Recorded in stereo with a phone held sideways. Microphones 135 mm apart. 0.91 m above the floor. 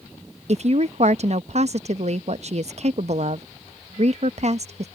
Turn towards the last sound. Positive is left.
turn(degrees=-55)  # may be behind; listen again after turning